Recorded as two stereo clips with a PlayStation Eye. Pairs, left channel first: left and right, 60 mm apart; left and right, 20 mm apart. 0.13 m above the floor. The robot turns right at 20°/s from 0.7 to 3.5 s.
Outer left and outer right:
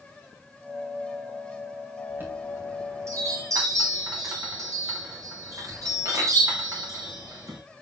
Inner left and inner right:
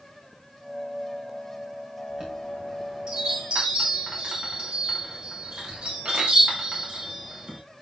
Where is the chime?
30° right (ahead or behind), 6.5 m; by 7.6 s 60° right (ahead or behind), 6.5 m.